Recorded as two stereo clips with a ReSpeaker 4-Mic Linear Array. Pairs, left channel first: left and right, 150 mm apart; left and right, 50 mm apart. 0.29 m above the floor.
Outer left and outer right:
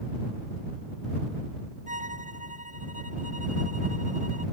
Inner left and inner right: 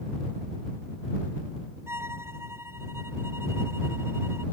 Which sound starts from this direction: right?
A violin, at 1.9 s.